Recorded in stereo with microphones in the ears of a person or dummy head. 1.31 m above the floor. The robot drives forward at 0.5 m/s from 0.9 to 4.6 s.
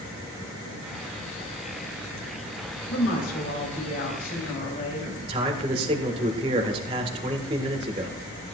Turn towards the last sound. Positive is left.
turn(degrees=-30)  # may be behind; listen again after turning